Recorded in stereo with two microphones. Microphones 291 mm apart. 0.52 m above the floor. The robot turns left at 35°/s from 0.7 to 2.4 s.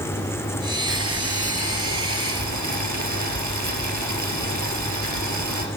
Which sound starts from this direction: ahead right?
Boiling, at 0.9 s.